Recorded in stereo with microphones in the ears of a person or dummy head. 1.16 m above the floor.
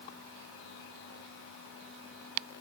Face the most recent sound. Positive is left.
No sound to turn to.